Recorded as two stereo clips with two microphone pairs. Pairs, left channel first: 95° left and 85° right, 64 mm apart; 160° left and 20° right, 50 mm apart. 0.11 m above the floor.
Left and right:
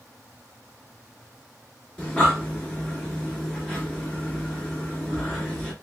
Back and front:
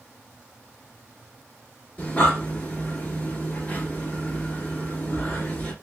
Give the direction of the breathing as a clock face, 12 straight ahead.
7 o'clock.